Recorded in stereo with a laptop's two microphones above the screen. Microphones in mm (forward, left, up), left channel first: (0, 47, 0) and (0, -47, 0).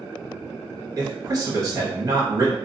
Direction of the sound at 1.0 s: 35° right (ahead or behind).